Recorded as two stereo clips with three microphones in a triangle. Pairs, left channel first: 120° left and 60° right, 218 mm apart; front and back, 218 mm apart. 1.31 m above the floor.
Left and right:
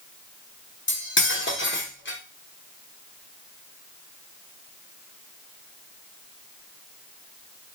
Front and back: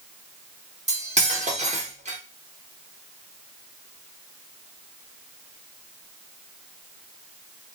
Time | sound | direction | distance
0.9 | cutlery clinking | 130° left | 0.8 m